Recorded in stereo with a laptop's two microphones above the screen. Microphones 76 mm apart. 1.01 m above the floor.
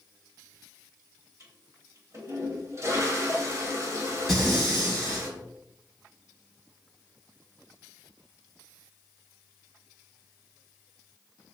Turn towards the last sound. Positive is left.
turn(degrees=-5)  # may be behind; listen again after turning